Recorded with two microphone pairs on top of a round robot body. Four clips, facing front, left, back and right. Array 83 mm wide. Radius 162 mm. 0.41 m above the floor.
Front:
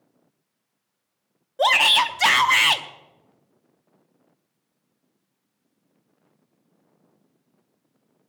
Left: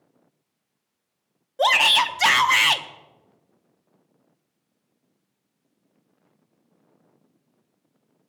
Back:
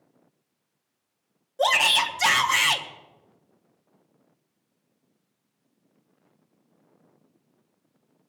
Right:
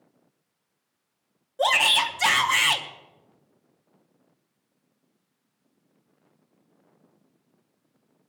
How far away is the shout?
About 1.1 m.